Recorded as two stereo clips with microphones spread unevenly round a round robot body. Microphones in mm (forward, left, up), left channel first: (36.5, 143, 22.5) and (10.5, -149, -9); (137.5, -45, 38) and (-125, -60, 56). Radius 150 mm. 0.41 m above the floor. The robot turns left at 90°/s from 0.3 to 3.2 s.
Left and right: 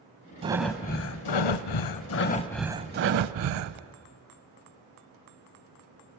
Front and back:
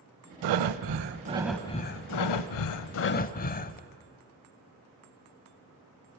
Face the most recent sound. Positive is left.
turn(degrees=-60)